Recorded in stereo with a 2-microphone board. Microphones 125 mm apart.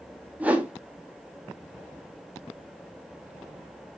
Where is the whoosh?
10° right (ahead or behind), 1.2 m.